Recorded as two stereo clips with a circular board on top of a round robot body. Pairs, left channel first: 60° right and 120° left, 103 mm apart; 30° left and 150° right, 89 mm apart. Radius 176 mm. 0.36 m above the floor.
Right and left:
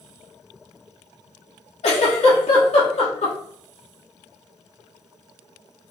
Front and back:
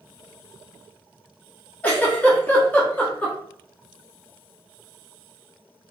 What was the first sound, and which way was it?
A giggle, 45° right.